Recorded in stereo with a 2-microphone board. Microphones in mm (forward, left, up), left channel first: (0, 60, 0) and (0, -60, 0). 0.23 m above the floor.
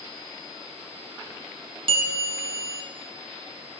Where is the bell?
50° right (ahead or behind), 0.5 m.